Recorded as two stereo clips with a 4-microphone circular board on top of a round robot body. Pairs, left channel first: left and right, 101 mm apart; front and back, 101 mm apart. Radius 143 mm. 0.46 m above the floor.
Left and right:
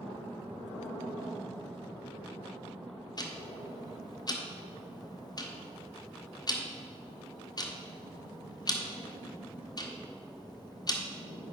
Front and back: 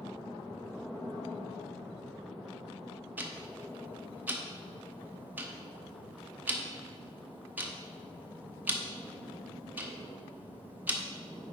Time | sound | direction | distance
3.2 | ticking | 115° left | 1.4 m